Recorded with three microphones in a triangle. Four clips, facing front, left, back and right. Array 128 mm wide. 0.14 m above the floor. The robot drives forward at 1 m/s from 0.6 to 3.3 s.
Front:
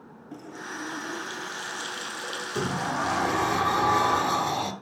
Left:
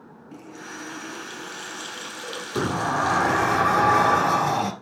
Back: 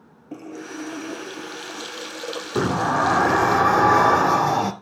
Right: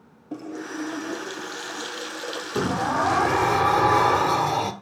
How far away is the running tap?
About 2 m.